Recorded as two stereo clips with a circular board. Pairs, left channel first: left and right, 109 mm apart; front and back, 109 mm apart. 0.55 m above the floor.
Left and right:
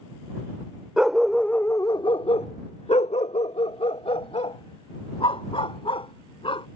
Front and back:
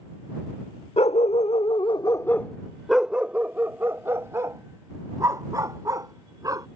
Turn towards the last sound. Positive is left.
turn(degrees=125)